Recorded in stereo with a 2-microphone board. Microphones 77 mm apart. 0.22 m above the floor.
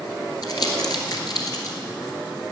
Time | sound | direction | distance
0.4 | crumpling | 50° left (ahead or behind) | 1.8 m